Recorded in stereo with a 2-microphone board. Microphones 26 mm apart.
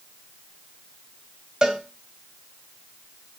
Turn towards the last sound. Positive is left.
turn(degrees=-20)  # may be behind; listen again after turning